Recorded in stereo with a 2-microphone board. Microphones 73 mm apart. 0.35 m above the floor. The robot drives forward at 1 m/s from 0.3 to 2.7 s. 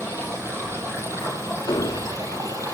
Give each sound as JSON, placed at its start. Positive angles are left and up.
{"t": 0.0, "sound": "running water", "side_deg": -35, "distance_m": 8.0}
{"t": 1.7, "sound": "an explosion", "side_deg": 80, "distance_m": 1.0}